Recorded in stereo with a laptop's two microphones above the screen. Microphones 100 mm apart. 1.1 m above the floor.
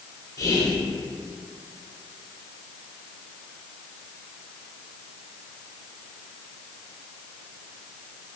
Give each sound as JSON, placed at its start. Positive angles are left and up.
{"t": 0.4, "sound": "whispering", "side_deg": 35, "distance_m": 0.5}